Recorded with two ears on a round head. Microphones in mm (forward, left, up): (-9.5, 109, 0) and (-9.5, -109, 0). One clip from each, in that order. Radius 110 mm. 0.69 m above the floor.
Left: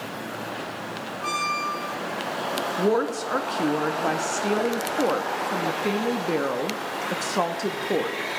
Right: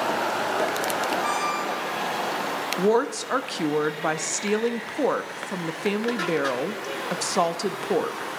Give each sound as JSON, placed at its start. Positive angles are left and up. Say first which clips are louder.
{"t": 1.2, "sound": "a squeak", "louder": "right 1 dB", "side_deg": -15, "distance_m": 2.5}
{"t": 2.8, "sound": "a woman speaking", "louder": "right 2 dB", "side_deg": -20, "distance_m": 0.5}